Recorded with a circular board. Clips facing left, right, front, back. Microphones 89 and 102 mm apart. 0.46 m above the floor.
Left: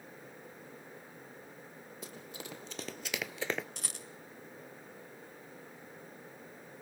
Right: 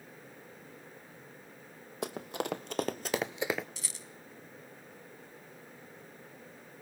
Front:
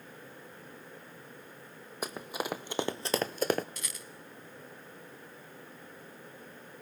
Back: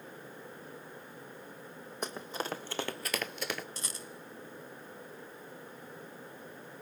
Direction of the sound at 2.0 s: 85° right.